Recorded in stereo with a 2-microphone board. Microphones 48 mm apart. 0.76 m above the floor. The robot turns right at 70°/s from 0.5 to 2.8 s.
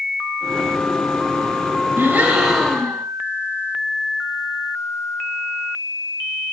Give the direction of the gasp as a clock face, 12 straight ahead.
1 o'clock.